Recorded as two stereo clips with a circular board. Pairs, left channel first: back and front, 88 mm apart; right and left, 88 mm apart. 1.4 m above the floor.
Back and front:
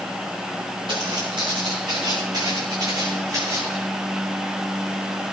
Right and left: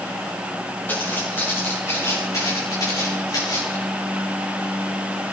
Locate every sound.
0.9 s footsteps: 25° right, 7.5 m; by 3.8 s 55° right, 6.5 m